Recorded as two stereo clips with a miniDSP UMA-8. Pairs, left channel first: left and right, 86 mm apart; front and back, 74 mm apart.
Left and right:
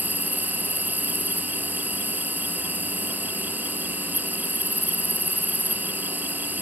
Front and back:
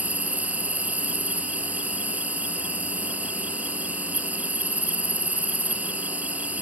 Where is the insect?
135° right.